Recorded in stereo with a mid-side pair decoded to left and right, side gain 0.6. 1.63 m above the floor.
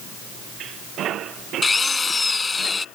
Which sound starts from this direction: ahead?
A drill, at 1.6 s.